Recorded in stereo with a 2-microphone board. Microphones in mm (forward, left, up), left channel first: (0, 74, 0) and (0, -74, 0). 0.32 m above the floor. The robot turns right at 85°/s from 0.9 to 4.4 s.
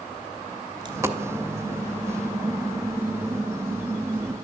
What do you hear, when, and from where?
0.8 s a dropped coin: 30° right (ahead or behind), 0.7 m; by 1.2 s 5° right (ahead or behind), 0.7 m